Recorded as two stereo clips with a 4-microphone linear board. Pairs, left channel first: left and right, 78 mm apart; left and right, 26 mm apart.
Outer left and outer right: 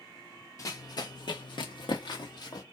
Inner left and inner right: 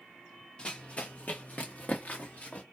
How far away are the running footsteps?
About 0.9 m.